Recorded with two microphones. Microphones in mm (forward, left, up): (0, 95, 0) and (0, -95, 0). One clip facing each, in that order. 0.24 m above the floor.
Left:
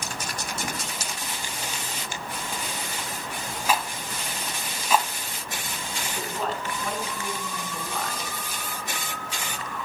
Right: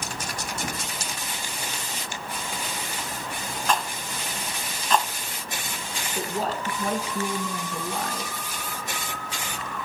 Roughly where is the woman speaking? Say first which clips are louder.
Right 3 dB; right.